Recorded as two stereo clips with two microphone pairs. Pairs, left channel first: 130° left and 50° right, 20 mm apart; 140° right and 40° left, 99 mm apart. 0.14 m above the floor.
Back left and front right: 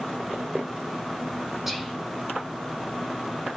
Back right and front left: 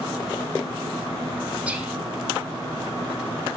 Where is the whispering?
Straight ahead, 1.1 m.